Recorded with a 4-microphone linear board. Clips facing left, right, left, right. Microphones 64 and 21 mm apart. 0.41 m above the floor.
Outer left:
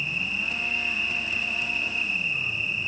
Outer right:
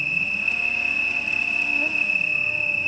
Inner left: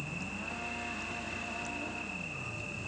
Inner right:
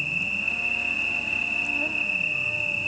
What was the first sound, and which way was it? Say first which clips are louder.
An insect: outer right 4 dB, inner right 14 dB; 50° right (ahead or behind).